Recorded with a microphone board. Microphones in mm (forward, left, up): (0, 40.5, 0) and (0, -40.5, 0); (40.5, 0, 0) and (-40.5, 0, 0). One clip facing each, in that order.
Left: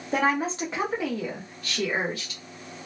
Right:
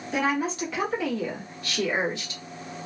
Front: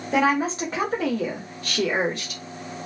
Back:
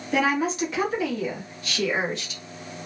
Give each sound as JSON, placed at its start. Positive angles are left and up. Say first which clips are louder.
{"t": 0.1, "sound": "a woman speaking", "louder": "left 1 dB, front 2 dB", "azimuth_deg": 55, "distance_m": 1.2}